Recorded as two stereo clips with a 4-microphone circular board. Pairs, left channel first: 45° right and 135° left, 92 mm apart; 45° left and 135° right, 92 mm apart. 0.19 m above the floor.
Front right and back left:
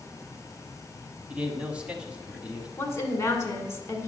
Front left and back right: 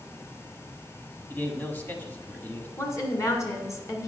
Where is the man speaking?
80° left, 1.1 m.